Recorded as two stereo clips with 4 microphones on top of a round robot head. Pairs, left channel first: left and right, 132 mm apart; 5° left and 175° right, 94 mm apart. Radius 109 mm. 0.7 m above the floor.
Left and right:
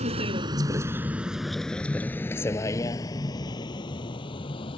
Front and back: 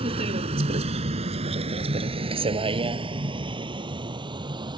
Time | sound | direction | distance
0.0 | a vehicle | 140° right | ?